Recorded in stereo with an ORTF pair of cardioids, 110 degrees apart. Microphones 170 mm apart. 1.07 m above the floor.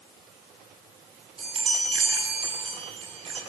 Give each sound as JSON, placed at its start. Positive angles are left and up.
{"t": 1.4, "sound": "a chime", "azimuth_deg": -35, "distance_m": 10.0}